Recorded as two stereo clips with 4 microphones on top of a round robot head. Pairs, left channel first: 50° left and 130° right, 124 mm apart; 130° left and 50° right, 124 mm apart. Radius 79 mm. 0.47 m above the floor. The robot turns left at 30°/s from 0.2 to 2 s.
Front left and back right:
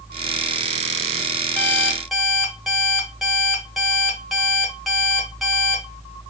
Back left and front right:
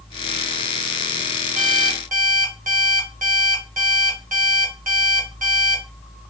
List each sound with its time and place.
1.6 s an alarm clock: 30° right, 1.2 m; by 5.8 s 40° right, 1.2 m